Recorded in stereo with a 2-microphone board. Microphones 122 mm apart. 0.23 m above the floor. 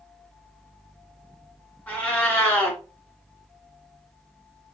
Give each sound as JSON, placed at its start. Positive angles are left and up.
{"t": 1.9, "sound": "a cat meowing", "side_deg": 15, "distance_m": 1.2}